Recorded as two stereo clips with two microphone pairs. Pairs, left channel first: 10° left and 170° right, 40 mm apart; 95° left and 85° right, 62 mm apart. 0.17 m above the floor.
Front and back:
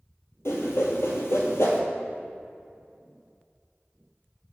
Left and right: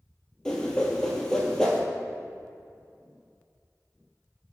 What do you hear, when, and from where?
0.5 s a whoosh: 20° left, 1.2 m